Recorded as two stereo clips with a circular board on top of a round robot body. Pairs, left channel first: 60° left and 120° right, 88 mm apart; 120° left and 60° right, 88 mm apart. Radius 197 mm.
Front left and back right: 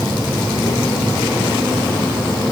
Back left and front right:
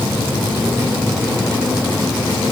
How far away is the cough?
I don't hear a cough.